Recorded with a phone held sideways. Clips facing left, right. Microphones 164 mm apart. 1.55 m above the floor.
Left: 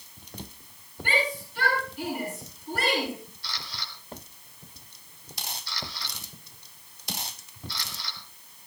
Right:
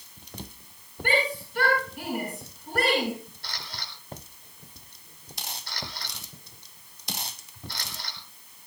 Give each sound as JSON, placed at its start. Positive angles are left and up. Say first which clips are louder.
{"t": 1.0, "sound": "a shout", "louder": "right 2 dB", "side_deg": -65, "distance_m": 8.5}
{"t": 3.4, "sound": "a camera shutter", "louder": "even", "side_deg": -55, "distance_m": 3.5}